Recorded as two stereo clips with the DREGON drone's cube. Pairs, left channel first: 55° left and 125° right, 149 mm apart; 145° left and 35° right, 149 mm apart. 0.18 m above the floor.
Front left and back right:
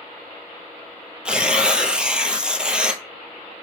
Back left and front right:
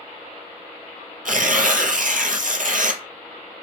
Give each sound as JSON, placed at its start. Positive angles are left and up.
{"t": 1.2, "sound": "tearing paper", "azimuth_deg": -40, "distance_m": 0.7}